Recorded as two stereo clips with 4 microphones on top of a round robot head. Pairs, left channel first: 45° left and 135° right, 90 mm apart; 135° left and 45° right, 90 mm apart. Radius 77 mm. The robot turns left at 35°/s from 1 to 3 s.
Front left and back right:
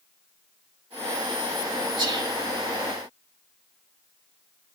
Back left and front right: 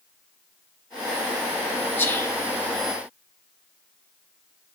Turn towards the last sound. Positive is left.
turn(degrees=165)